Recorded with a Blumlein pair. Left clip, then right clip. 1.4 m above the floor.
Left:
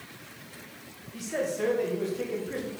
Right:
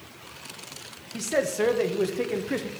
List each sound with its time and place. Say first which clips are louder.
1.1 s a man speaking: right 5 dB; 25° right, 1.5 m